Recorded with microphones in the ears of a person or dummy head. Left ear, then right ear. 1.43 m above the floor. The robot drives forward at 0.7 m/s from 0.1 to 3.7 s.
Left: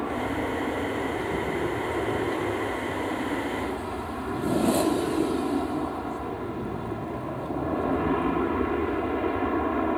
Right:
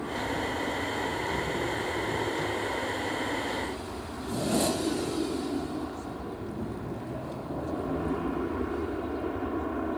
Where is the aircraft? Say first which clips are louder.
Left 3 dB; 65° left (ahead or behind); by 10.0 s 70° left (ahead or behind).